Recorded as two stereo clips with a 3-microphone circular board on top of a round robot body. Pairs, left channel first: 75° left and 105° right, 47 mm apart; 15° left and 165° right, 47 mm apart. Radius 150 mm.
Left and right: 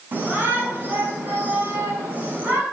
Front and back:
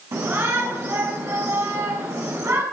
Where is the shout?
150° right, 6 m.